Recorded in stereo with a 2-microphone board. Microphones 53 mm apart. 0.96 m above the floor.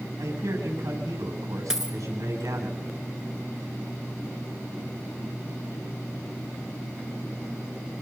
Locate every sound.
0.2 s a man speaking: 80° right, 7 m
1.7 s a dropped coin: 5° right (ahead or behind), 2.5 m